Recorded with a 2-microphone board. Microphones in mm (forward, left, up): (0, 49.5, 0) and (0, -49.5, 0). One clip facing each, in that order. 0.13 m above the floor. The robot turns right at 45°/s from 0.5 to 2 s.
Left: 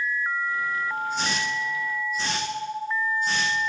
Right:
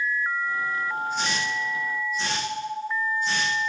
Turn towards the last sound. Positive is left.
turn(degrees=40)  # may be behind; listen again after turning